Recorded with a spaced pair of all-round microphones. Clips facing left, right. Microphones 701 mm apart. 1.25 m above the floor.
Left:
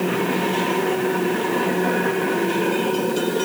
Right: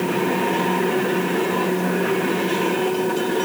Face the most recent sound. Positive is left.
No sound to turn to.